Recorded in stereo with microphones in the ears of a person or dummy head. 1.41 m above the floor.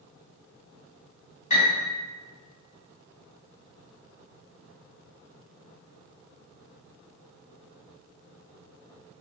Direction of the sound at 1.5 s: 35° left (ahead or behind).